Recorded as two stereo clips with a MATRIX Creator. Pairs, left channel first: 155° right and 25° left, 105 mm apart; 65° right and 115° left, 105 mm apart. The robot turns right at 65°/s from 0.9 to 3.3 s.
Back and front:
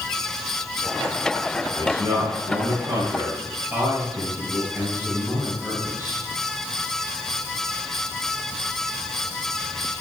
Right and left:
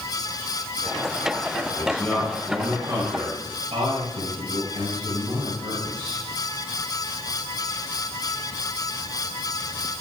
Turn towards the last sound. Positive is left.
turn(degrees=85)